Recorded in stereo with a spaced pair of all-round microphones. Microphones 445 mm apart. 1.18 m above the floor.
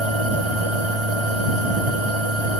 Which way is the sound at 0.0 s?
80° right.